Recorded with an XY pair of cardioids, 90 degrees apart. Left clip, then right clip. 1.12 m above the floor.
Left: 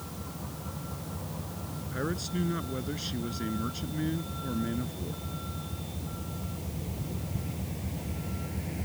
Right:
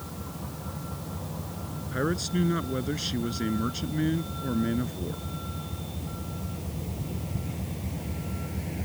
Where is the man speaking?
35° right.